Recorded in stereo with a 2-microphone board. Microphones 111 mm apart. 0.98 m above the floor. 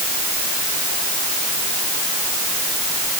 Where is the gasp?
No gasp in this recording.